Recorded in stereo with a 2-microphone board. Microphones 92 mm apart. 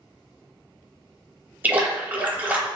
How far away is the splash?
About 0.7 m.